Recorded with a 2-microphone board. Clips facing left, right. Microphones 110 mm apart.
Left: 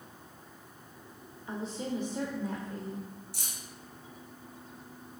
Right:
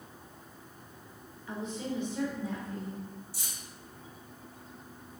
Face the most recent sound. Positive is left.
turn(degrees=70)  # may be behind; listen again after turning